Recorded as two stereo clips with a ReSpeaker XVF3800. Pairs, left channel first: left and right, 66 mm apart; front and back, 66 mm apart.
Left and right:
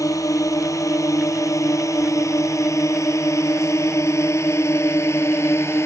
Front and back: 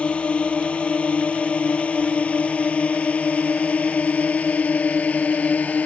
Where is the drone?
70° left; by 5.9 s 60° left.